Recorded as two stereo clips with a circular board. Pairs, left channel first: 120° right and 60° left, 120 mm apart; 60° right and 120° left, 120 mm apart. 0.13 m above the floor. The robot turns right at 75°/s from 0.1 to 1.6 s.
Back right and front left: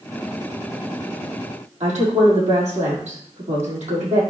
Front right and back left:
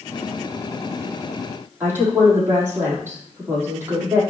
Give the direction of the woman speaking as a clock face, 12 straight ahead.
10 o'clock.